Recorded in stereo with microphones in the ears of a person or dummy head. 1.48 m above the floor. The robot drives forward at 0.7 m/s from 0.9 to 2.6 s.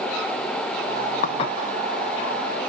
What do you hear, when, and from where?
1.2 s dishes clattering: 40° left (ahead or behind), 0.6 m; by 1.6 s 35° left (ahead or behind), 0.7 m